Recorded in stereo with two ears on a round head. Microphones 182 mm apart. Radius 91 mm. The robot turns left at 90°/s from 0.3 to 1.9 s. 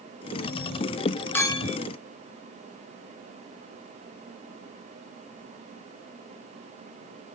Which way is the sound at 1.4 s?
170° left.